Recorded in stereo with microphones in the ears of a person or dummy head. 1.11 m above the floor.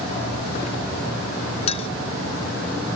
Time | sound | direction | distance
1.7 | a clink | 35° left (ahead or behind) | ?